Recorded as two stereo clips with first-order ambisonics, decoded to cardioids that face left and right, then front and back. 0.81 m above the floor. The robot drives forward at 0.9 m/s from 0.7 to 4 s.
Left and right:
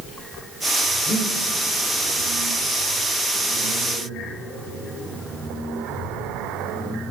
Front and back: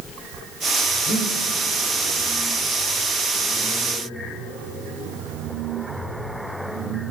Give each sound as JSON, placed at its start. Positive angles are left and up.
{"t": 1.1, "sound": "breathing", "azimuth_deg": -15, "distance_m": 2.5}